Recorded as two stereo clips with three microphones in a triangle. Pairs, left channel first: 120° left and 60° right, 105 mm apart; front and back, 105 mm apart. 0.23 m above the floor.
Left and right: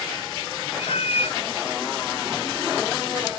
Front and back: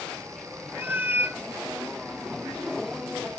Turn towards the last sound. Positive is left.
turn(degrees=110)